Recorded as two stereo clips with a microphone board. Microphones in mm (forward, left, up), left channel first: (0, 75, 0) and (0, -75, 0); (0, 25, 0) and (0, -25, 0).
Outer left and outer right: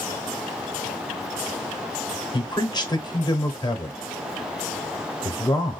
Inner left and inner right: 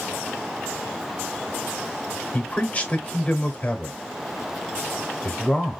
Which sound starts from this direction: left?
A man speaking, at 2.3 s.